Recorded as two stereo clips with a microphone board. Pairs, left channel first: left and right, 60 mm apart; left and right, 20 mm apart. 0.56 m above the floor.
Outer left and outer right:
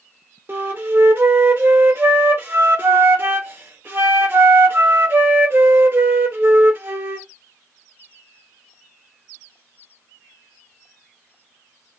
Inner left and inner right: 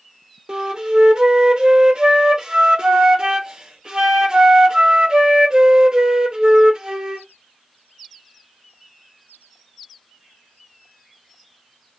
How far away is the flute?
About 0.8 m.